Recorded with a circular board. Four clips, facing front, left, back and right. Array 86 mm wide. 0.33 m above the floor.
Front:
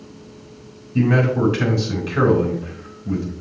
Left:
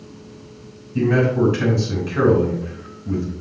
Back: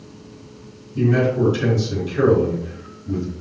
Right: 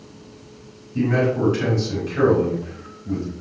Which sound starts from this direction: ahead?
A man speaking, at 0.9 s.